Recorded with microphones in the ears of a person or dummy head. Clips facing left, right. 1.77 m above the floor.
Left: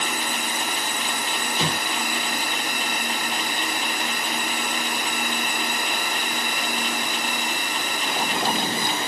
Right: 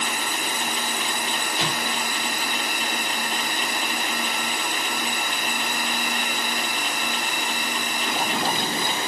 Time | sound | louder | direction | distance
1.6 | an explosion | left 3 dB | 80° left | 5.5 m